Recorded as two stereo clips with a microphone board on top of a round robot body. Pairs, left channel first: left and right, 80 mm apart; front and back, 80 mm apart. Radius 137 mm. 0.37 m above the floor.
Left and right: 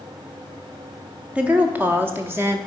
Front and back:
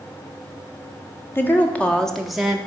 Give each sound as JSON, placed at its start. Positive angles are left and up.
{"t": 1.4, "sound": "a woman speaking", "azimuth_deg": -30, "distance_m": 1.4}